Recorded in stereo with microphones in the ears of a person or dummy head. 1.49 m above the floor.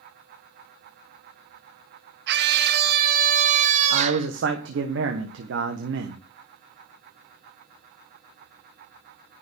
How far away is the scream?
About 2.5 m.